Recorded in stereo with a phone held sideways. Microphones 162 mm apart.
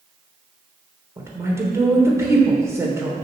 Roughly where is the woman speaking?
Centre.